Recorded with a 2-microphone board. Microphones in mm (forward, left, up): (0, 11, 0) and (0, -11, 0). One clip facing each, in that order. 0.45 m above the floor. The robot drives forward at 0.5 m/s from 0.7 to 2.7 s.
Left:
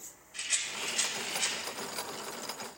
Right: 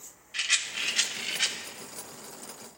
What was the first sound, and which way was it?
A rattle, 45° right (ahead or behind).